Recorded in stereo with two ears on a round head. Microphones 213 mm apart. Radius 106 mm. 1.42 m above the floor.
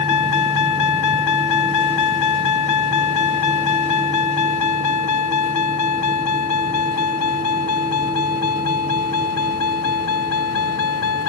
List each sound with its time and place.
0.0 s a vehicle: 85° left; by 11.3 s 60° left (ahead or behind)